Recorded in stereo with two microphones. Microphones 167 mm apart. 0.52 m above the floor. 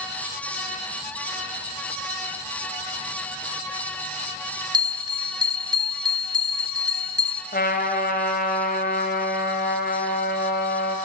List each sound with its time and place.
4.7 s a bell: 25° right (ahead or behind), 0.9 m
7.5 s a trumpet: 70° left (ahead or behind), 3 m